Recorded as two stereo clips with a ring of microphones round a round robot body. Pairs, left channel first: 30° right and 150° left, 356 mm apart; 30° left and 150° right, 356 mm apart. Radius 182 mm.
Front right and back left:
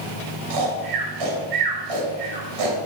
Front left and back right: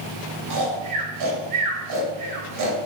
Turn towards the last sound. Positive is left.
turn(degrees=170)